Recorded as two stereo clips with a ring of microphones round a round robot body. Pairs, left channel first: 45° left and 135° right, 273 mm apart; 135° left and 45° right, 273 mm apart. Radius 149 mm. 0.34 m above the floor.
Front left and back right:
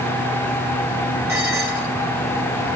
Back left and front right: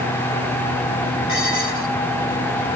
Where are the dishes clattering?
145° left, 5.5 m.